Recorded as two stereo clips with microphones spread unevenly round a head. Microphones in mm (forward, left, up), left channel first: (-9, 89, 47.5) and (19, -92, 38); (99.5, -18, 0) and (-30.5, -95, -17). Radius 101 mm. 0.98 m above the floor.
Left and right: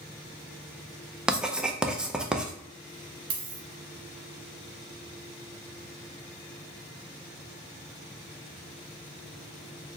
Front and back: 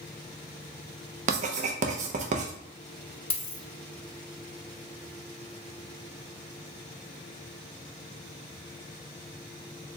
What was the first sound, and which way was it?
Writing, 165° right.